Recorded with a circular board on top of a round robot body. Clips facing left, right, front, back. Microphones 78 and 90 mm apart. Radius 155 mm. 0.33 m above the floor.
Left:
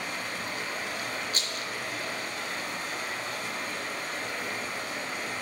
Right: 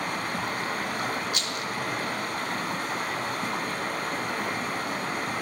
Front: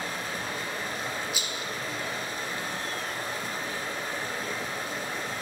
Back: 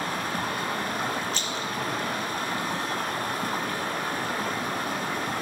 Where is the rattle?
75° left, 1.4 m.